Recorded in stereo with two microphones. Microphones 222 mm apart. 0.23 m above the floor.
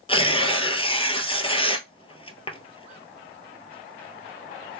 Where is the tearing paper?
25° left (ahead or behind), 1.0 m.